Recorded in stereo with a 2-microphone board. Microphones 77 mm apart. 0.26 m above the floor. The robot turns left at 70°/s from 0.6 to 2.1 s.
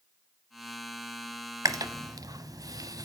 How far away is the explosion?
I don't hear an explosion.